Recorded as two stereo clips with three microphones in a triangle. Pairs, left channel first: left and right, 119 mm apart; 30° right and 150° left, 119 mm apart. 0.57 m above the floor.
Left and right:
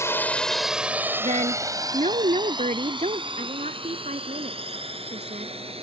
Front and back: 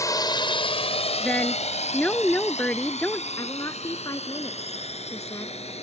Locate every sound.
0.0 s a drone: 25° left; by 5.8 s 55° right
1.2 s a woman speaking: 110° right
3.4 s a woman speaking: 90° right